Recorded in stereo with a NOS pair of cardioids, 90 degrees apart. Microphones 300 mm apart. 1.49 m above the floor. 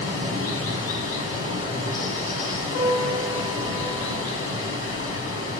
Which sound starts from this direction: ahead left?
Running water, at 0.0 s.